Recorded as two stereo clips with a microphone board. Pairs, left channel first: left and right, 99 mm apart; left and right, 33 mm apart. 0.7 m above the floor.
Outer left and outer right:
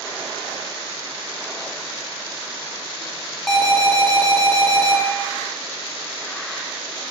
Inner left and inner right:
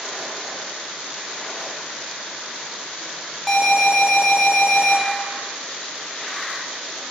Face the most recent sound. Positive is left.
turn(degrees=5)  # may be behind; listen again after turning